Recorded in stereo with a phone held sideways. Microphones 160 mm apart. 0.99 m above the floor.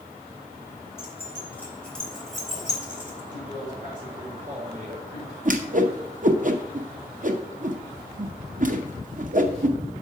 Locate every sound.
1.0 s keys jangling: 15° left (ahead or behind), 2.5 m; by 3.2 s 10° right (ahead or behind), 2.5 m
3.3 s a man speaking: 55° right (ahead or behind), 2 m
5.5 s a whoosh: 55° right (ahead or behind), 0.7 m